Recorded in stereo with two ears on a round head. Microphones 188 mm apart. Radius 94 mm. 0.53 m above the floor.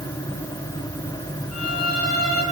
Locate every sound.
1.5 s a violin: 75° left (ahead or behind), 7.5 m